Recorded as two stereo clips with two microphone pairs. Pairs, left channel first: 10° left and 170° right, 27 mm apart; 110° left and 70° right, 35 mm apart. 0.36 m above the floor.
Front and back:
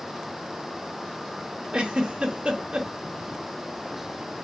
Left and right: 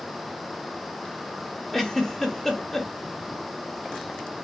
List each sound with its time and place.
1.7 s a giggle: 170° right, 0.7 m